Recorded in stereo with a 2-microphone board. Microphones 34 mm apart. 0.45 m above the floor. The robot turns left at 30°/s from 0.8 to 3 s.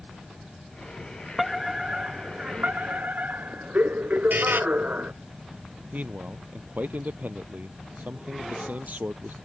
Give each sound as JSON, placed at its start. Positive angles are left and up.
{"t": 1.4, "sound": "a fire alarm", "azimuth_deg": -5}
{"t": 4.3, "sound": "a buzzer", "side_deg": -75}
{"t": 5.9, "sound": "a man speaking", "side_deg": -55}